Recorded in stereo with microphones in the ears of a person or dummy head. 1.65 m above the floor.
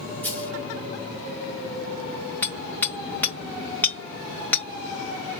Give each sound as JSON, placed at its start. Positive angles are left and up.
{"t": 0.2, "sound": "a dropped coin", "side_deg": 10, "distance_m": 3.0}
{"t": 2.4, "sound": "hammering", "side_deg": 10, "distance_m": 2.0}